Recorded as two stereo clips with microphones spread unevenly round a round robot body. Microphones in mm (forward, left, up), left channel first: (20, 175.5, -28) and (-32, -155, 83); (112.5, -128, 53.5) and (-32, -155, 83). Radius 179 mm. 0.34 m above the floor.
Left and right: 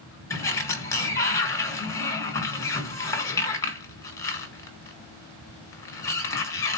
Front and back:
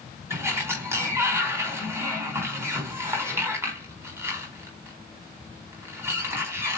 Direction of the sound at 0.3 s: 110° left.